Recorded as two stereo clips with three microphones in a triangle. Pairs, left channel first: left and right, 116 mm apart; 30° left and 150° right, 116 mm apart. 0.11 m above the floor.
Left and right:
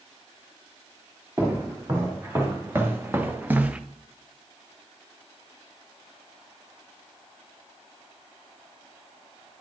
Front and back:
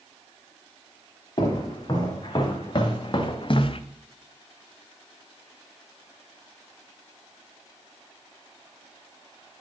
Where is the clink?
No clink in this recording.